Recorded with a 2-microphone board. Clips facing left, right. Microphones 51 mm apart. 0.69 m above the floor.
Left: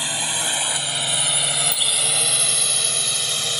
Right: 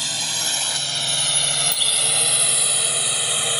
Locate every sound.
0.0 s a drone: 20° left (ahead or behind); by 3.6 s 20° right (ahead or behind)
1.7 s a bicycle bell: centre (ahead or behind)